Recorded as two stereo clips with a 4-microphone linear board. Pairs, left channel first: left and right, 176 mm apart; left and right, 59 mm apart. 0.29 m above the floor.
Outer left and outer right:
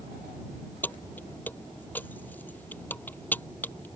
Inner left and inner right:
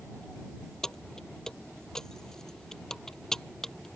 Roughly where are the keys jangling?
Centre.